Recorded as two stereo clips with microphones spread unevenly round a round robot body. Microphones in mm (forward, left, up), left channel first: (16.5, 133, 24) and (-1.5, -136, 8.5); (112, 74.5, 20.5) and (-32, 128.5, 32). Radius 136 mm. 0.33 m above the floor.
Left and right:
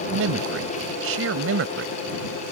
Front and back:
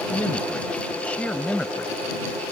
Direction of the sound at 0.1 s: 100° right.